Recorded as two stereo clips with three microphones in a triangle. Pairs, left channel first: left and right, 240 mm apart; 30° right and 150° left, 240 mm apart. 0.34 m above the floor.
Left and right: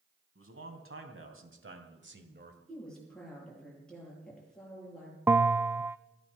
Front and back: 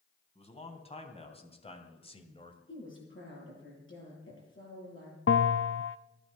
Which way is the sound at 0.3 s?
90° right.